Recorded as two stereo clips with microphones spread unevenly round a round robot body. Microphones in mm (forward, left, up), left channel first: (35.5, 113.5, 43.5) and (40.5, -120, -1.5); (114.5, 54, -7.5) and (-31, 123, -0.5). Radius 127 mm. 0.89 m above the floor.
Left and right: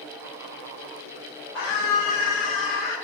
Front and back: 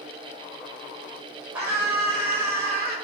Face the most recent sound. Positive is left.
turn(degrees=85)